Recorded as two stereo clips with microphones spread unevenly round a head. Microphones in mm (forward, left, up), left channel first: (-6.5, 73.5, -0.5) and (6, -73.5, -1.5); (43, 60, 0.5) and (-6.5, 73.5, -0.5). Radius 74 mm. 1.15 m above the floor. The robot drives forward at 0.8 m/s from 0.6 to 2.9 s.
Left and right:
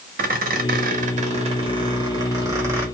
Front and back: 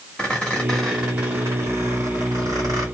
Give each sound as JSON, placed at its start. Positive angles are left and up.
{"t": 0.2, "sound": "a squeak", "azimuth_deg": -85, "distance_m": 0.9}